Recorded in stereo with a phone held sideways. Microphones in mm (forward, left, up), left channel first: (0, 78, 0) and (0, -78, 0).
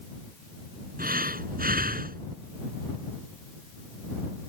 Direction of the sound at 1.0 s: 70° right (ahead or behind).